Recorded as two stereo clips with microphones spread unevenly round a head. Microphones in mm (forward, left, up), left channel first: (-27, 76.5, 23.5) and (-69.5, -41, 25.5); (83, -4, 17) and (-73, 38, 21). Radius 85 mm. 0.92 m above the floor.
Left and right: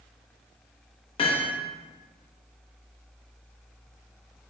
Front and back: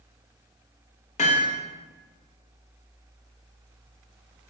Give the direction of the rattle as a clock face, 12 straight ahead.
I don't hear a rattle.